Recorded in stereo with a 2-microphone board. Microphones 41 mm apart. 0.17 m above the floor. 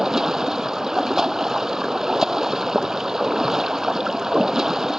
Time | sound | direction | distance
0.0 | running water | 15° right (ahead or behind) | ?